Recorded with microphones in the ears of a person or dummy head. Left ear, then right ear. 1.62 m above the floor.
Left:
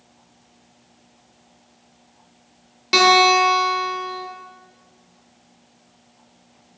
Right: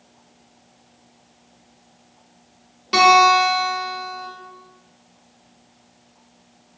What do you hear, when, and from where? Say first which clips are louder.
2.9 s a guitar: right 1 dB; 20° left (ahead or behind), 0.7 m